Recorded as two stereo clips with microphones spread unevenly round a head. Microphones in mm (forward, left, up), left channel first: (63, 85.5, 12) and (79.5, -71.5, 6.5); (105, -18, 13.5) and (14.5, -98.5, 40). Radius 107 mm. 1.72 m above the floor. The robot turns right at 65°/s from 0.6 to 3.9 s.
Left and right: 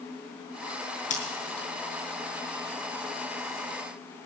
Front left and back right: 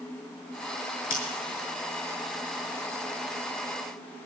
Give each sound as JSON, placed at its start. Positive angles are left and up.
{"t": 1.1, "sound": "scissors", "azimuth_deg": 60, "distance_m": 6.5}